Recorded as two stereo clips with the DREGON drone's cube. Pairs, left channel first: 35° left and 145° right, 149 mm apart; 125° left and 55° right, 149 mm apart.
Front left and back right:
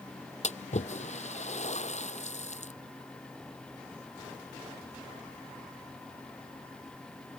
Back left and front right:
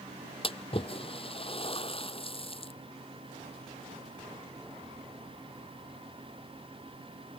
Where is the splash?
75° left.